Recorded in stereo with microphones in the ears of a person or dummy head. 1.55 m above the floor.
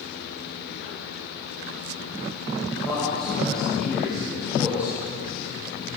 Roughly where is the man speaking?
Centre.